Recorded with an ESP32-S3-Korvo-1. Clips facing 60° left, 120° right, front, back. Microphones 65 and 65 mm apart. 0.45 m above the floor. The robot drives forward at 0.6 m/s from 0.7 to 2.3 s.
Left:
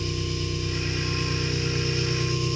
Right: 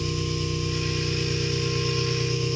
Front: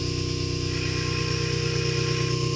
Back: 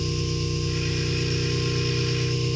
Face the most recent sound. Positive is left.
turn(degrees=-70)